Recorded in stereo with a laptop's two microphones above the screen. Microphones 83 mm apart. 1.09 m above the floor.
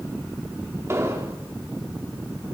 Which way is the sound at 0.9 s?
35° right (ahead or behind).